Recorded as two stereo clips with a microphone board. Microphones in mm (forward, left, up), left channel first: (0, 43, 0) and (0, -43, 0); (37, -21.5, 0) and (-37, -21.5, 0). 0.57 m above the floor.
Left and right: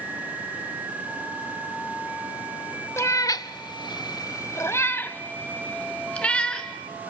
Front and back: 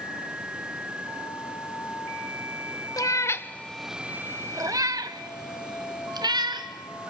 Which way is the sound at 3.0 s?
35° left.